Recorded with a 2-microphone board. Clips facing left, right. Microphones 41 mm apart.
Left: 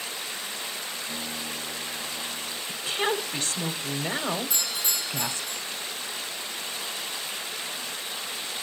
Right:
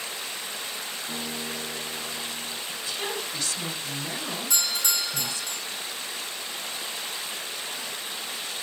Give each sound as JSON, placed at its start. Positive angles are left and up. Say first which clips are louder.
{"t": 1.1, "sound": "a guitar", "louder": "right 1 dB", "side_deg": -45, "distance_m": 5.5}
{"t": 2.7, "sound": "a woman speaking", "louder": "left 7 dB", "side_deg": 40, "distance_m": 1.4}
{"t": 4.5, "sound": "a doorbell", "louder": "right 2 dB", "side_deg": -70, "distance_m": 5.5}